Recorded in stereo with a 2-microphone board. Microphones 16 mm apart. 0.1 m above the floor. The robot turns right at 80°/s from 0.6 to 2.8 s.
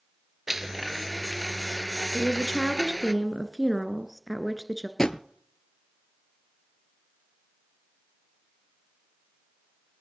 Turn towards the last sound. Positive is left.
turn(degrees=45)  # may be behind; listen again after turning